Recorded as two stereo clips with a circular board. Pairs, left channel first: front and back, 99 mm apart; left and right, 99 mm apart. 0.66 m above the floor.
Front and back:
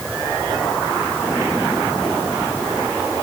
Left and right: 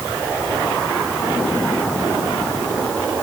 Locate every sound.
Only background noise.